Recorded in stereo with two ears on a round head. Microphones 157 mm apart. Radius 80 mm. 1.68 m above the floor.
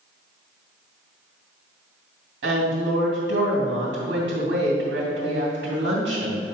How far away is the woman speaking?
About 2.5 m.